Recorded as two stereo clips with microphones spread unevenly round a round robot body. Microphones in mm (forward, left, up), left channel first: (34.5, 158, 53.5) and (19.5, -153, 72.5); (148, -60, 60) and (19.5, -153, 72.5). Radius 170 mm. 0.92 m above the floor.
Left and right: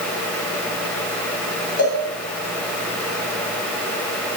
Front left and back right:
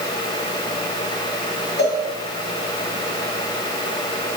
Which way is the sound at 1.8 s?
45° left.